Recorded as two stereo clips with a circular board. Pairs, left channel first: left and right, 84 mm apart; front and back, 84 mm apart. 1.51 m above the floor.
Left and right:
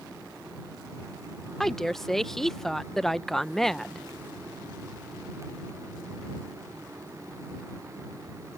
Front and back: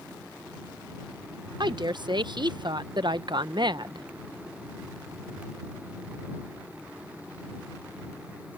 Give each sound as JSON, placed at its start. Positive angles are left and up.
{"t": 1.6, "sound": "a woman speaking", "azimuth_deg": 175}